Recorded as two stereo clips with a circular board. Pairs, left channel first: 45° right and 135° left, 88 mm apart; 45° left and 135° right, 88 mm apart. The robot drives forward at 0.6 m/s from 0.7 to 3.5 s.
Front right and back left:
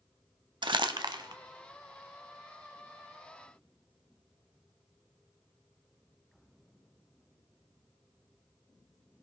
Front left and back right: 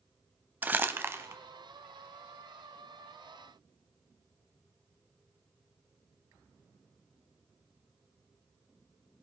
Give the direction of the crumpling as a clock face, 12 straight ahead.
7 o'clock.